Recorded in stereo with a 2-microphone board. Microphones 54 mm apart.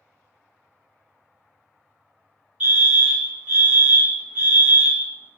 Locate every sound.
2.6 s a fire alarm: 30° right (ahead or behind), 1.4 m